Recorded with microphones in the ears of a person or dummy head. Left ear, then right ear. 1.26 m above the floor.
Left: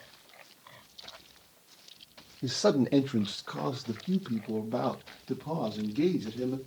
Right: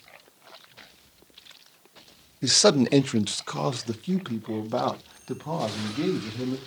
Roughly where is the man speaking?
Right.